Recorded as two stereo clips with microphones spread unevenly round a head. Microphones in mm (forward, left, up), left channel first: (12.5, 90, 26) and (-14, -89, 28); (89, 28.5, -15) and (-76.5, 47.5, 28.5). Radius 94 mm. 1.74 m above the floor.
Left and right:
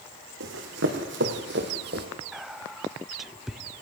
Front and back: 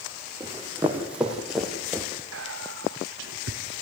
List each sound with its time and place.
0.4 s running footsteps: 115° right, 4.5 m; by 2.1 s 100° right, 2.5 m
2.3 s whispering: 175° left, 1.0 m